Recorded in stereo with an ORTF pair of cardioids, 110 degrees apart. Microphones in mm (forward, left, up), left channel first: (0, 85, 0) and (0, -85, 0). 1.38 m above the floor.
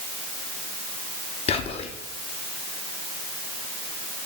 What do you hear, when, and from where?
1.5 s whispering: 35° left, 0.6 m